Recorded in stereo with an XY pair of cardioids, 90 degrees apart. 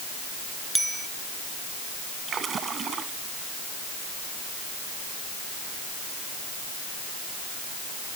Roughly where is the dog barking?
I don't hear a dog barking.